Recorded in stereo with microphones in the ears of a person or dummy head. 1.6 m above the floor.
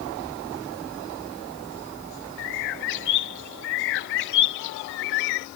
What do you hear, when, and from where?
2.4 s a bird: 70° left (ahead or behind)